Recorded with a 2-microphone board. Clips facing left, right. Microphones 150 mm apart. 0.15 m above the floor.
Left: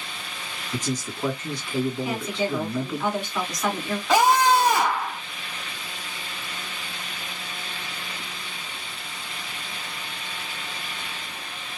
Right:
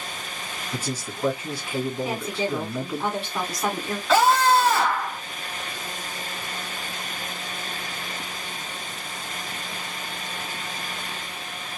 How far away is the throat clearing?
I don't hear throat clearing.